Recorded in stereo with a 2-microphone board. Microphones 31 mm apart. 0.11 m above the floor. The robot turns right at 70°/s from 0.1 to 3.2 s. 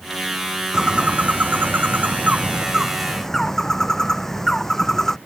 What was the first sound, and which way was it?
A bird, 155° right.